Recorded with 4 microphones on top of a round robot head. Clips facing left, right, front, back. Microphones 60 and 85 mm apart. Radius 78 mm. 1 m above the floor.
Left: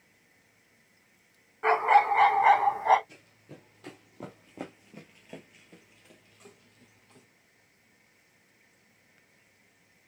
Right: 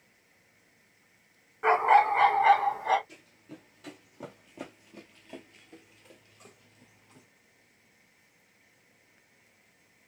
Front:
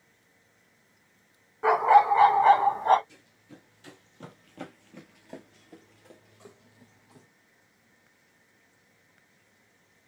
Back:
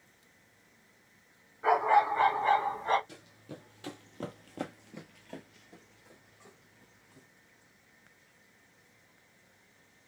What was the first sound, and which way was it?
A dog barking, 5° right.